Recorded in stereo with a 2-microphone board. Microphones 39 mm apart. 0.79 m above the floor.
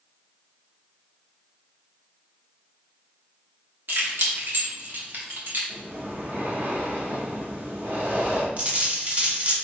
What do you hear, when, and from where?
3.9 s keys jangling: 75° right (ahead or behind), 1.2 m; by 5.6 s 65° right (ahead or behind), 1.8 m
5.7 s breathing: 70° right (ahead or behind), 1.9 m
8.6 s a dropped coin: 40° right (ahead or behind), 1.2 m